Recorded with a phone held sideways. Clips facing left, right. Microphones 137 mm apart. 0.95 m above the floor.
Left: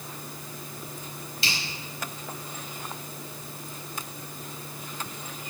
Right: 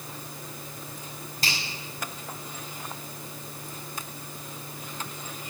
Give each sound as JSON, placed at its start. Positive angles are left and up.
{"t": 1.4, "sound": "a finger snap", "side_deg": -45, "distance_m": 5.5}